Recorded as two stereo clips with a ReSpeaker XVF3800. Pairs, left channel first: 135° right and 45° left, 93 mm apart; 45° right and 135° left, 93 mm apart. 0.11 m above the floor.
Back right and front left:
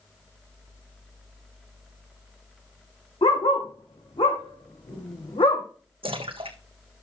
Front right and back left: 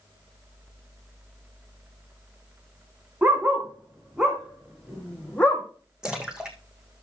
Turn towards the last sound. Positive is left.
turn(degrees=50)